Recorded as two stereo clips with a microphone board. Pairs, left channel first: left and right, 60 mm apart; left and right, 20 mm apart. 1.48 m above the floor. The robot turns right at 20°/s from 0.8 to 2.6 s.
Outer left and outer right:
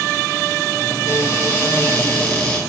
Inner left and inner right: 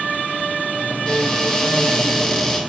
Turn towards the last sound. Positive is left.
turn(degrees=160)